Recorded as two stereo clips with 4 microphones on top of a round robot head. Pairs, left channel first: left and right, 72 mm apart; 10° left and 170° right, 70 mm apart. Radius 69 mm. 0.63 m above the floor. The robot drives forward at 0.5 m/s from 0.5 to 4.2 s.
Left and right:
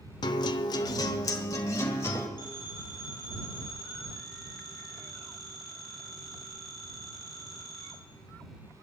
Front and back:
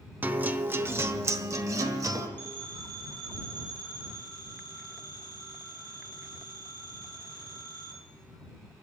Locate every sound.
0.2 s a guitar: 125° left, 0.8 m; by 2.3 s 155° left, 1.5 m
2.4 s a phone ringing: 155° right, 3.5 m; by 7.9 s 160° right, 4.5 m